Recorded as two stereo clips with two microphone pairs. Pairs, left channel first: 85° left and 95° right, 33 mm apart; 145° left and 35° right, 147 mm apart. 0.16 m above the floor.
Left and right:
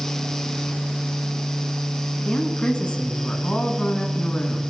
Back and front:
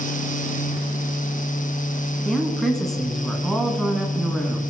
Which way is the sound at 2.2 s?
60° left.